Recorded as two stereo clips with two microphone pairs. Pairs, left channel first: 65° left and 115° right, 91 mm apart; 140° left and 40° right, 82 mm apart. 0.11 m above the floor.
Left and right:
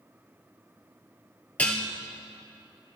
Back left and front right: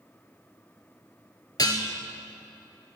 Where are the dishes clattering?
135° left, 1.5 m.